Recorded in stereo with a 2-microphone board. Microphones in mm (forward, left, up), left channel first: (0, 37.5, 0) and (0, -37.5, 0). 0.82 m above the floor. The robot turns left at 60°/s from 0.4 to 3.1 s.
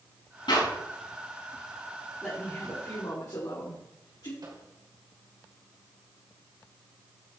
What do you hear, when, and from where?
0.5 s a clap: 85° left, 5.5 m; by 0.7 s 75° left (ahead or behind), 5.5 m
2.2 s a man speaking: 160° left, 2.5 m; by 4.3 s 110° left, 2.5 m
4.4 s a microwave: 60° right (ahead or behind), 3 m